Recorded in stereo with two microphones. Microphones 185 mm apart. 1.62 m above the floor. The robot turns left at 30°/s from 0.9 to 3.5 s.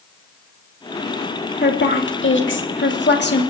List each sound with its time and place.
1.6 s a woman speaking: 115° left, 2 m; by 3.4 s 60° left, 2 m